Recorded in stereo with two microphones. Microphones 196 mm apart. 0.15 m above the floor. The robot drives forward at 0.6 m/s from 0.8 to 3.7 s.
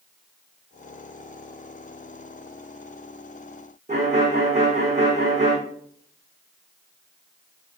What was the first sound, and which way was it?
A violin, 35° right (ahead or behind).